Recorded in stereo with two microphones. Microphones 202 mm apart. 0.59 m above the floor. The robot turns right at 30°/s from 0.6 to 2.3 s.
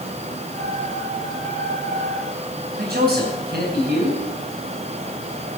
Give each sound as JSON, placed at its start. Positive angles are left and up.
{"t": 2.7, "sound": "a man speaking", "side_deg": -50, "distance_m": 4.0}